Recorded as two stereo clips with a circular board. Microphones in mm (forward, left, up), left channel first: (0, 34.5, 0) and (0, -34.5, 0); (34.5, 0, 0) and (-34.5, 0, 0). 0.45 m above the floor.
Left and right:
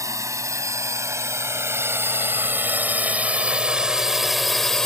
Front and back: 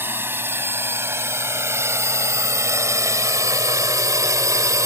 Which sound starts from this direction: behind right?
A drone, at 0.0 s.